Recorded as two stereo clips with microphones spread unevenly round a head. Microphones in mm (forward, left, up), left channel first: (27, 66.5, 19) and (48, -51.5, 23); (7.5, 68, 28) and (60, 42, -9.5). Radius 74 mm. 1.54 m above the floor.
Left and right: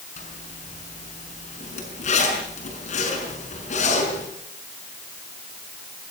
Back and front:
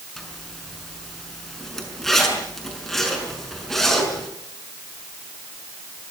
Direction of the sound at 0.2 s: 75° left.